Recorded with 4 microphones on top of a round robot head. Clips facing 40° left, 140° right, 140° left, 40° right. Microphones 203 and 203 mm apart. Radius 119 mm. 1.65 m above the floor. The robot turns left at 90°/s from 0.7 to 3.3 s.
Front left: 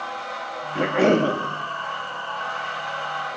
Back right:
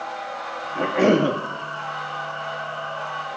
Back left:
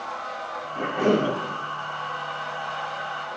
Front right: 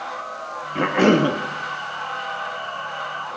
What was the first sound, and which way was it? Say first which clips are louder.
A cough: back right 1 dB, front right 5 dB; 25° right.